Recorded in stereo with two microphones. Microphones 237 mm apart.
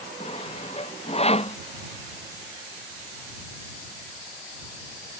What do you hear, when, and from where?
0.2 s sawing: 25° left (ahead or behind)